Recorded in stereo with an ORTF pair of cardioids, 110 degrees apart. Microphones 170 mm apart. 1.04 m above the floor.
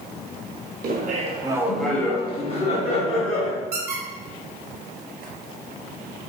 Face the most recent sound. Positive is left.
turn(degrees=-65)